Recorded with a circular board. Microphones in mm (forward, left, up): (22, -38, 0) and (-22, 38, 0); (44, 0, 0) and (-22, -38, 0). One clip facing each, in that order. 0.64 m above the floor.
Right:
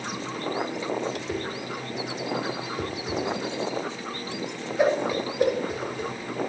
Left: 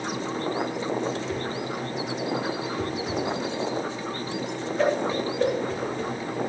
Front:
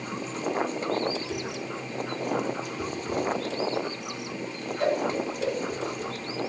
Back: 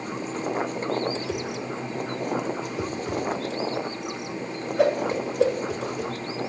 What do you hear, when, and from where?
1.1 s a whoosh: 140° right, 1.6 m